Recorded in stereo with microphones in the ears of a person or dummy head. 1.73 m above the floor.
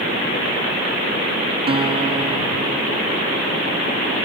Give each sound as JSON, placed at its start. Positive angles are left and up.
{"t": 1.7, "sound": "a guitar", "side_deg": -35}